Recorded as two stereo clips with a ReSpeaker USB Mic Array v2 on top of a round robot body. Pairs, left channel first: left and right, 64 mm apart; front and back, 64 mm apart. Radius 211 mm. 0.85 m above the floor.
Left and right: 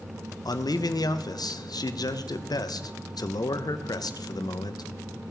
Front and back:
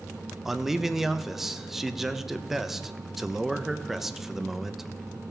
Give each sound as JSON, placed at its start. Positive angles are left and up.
{"t": 0.5, "sound": "a man speaking", "azimuth_deg": 95, "distance_m": 0.7}